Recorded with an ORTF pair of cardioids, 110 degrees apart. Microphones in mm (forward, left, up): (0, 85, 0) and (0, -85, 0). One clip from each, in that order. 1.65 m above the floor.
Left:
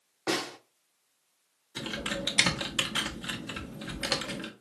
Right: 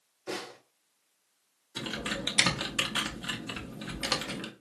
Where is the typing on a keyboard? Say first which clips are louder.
Left 1 dB; straight ahead, 0.7 m.